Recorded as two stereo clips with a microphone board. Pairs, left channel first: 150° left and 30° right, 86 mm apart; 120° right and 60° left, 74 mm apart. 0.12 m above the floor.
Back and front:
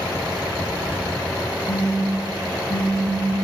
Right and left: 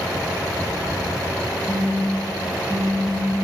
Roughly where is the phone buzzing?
Behind left.